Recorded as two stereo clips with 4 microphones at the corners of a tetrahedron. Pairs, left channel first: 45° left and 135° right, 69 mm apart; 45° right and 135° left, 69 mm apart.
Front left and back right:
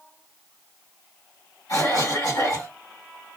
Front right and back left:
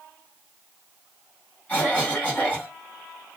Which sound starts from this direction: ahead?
A cough, at 1.7 s.